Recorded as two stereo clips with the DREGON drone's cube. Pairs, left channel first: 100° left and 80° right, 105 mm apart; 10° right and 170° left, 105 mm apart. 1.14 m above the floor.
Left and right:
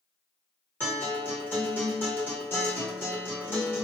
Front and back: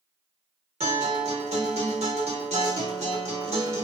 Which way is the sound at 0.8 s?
170° left.